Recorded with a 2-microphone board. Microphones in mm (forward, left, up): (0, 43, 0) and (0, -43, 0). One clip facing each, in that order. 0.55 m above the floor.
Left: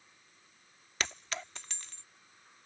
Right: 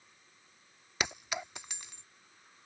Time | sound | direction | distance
1.0 | a clink | 10° right (ahead or behind) | ?